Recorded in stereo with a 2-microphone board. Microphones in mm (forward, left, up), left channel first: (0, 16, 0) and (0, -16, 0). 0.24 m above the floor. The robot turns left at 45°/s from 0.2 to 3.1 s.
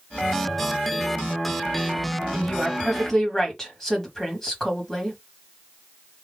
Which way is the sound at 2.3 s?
30° left (ahead or behind).